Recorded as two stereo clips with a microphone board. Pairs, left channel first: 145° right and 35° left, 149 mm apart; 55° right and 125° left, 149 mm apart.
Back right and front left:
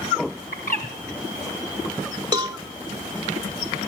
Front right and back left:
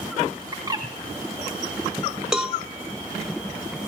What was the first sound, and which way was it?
A bird, 170° right.